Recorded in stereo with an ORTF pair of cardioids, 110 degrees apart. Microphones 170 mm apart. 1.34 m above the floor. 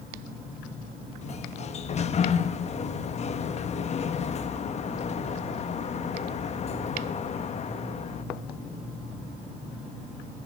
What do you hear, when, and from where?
1.2 s a sliding door: 40° left, 1.4 m